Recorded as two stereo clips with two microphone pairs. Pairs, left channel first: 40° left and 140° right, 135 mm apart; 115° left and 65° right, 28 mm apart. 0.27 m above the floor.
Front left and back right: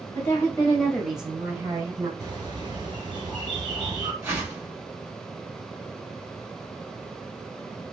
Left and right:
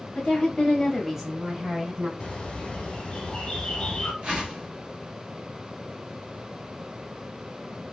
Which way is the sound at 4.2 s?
75° right.